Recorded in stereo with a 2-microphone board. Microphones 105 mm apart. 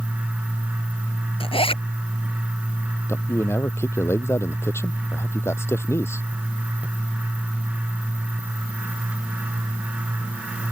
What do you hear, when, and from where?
1.4 s a zipper: 60° left (ahead or behind)
3.1 s a man speaking: 25° left (ahead or behind)